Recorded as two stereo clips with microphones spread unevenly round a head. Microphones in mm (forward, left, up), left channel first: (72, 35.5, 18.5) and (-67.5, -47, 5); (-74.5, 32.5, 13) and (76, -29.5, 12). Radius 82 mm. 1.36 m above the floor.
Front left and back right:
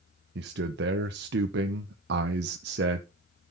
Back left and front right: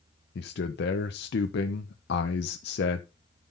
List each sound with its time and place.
0.3 s a man speaking: 175° right, 0.9 m